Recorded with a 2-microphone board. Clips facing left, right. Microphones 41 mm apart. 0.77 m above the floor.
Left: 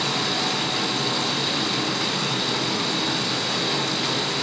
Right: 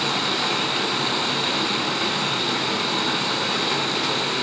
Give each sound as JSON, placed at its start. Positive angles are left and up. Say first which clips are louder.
{"t": 0.0, "sound": "running water", "louder": "right 1 dB", "side_deg": -30, "distance_m": 6.0}